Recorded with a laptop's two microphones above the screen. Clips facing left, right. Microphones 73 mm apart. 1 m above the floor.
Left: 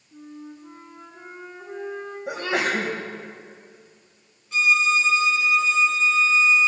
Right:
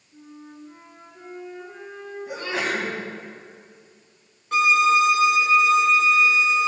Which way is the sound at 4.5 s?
55° right (ahead or behind).